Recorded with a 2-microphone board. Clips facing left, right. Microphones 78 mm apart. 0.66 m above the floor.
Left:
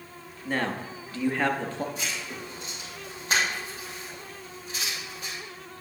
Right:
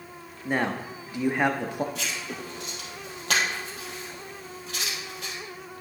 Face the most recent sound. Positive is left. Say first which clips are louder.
# right 1 dB
turn(degrees=-75)  # may be behind; listen again after turning